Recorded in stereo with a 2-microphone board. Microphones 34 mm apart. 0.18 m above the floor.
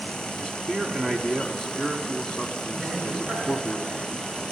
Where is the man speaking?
25° left (ahead or behind), 1.1 m.